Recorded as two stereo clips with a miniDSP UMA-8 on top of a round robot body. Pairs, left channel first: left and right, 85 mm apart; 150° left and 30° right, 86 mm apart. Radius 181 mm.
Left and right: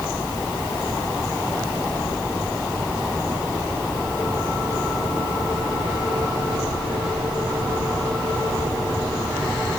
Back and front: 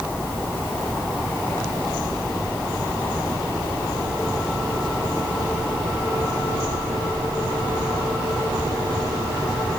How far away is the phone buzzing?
I don't hear a phone buzzing.